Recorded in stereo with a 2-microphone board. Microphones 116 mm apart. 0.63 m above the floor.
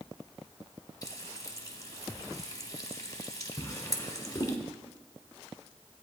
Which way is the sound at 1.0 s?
35° left (ahead or behind).